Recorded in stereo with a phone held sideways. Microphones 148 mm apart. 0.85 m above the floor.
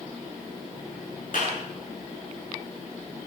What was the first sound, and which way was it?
A clap, 65° left (ahead or behind).